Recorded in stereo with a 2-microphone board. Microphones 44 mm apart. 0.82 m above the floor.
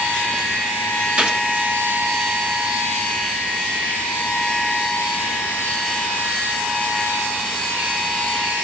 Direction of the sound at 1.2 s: 25° right (ahead or behind).